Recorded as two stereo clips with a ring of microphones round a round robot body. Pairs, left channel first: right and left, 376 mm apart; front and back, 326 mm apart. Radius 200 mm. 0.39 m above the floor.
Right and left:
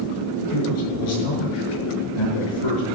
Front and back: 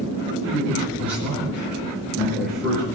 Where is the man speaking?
95° right, 6 m.